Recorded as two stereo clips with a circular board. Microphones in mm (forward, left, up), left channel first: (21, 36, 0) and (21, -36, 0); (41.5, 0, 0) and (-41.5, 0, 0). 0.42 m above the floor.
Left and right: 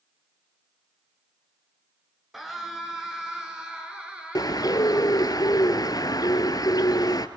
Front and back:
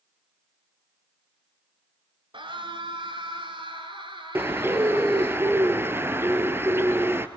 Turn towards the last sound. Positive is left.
turn(degrees=120)